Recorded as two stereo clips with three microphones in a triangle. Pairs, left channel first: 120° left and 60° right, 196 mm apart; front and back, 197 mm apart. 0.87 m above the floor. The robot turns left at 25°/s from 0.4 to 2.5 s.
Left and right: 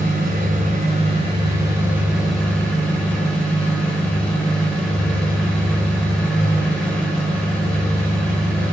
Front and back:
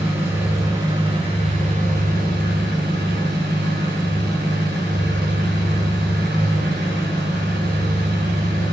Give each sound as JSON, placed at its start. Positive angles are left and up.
{"t": 0.0, "sound": "an engine running", "azimuth_deg": -100, "distance_m": 4.0}